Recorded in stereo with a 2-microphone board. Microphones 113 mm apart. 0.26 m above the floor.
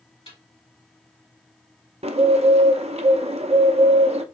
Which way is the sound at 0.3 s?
55° left (ahead or behind).